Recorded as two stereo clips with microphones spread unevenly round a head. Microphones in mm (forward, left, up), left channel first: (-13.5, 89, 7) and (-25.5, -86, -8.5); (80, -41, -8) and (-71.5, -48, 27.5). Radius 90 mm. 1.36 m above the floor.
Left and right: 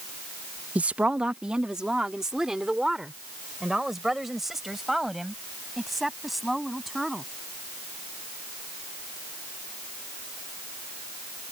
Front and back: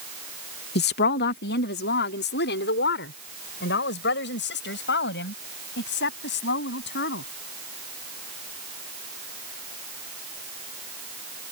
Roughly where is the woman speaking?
Ahead.